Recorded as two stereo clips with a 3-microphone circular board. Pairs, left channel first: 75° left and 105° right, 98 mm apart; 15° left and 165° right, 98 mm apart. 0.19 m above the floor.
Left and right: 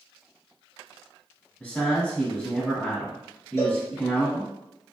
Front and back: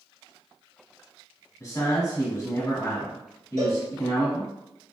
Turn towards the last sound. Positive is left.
turn(degrees=135)